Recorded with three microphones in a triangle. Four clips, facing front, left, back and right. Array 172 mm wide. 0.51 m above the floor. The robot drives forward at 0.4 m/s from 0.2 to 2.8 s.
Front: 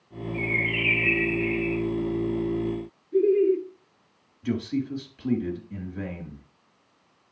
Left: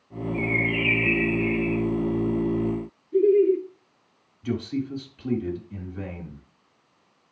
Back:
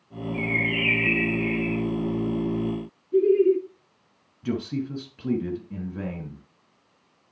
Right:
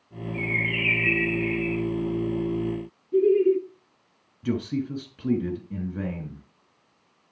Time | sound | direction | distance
0.3 | a bird | 145° right | 7.5 m
3.1 | laughter | 135° right | 6 m
4.4 | a man speaking | 125° right | 3.5 m